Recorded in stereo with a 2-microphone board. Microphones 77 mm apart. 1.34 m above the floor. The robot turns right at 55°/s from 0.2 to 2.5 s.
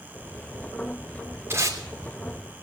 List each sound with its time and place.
1.5 s tape being pulled: 35° right (ahead or behind), 3 m; by 1.8 s 50° right (ahead or behind), 3 m